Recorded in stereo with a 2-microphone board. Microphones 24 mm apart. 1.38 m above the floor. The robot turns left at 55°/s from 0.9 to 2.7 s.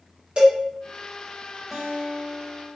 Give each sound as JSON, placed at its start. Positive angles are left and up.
{"t": 0.4, "sound": "a cowbell", "side_deg": -50, "distance_m": 1.9}
{"t": 1.7, "sound": "a guitar", "azimuth_deg": -35, "distance_m": 1.7}